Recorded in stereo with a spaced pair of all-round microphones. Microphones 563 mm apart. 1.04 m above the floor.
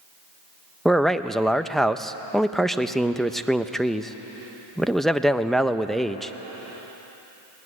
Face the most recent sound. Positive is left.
turn(degrees=0)  # may be behind; listen again after turning